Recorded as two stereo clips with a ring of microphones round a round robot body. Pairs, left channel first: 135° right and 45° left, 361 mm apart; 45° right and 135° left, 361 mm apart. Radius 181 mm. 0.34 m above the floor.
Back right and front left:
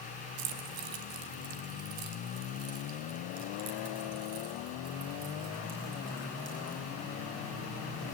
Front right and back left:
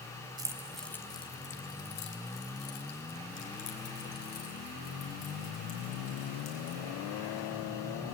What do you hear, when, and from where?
0.4 s keys jangling: 55° left, 1.6 m; by 6.8 s 15° right, 5.5 m